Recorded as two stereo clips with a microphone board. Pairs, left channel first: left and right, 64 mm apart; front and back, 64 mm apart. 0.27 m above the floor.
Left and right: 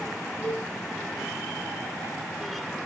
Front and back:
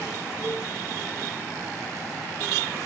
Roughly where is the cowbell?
Behind left.